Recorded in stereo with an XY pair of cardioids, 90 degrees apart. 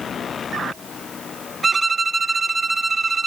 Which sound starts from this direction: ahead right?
A violin, at 1.6 s.